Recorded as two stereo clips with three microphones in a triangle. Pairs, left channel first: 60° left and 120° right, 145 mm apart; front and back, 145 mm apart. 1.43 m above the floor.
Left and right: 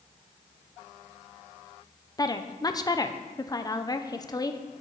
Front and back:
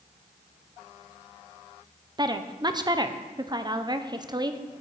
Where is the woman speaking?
120° left, 0.8 m.